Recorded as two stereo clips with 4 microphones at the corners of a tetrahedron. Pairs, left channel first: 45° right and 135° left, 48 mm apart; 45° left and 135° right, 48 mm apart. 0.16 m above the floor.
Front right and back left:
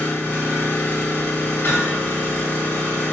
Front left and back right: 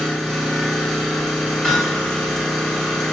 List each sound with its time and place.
0.0 s an engine running: 35° right, 1.6 m
1.6 s hammering: 20° right, 1.7 m